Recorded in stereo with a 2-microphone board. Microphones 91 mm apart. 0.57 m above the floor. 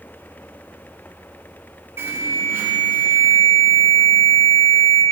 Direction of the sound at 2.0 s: 25° right (ahead or behind).